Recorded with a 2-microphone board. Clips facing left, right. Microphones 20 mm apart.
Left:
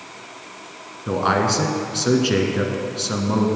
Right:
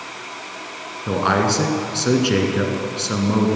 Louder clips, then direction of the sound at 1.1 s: Right 1 dB; 5° right (ahead or behind).